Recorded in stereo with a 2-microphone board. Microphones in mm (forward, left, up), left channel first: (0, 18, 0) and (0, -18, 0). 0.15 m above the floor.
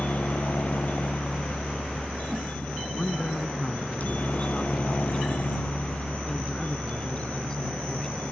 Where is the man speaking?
25° left (ahead or behind).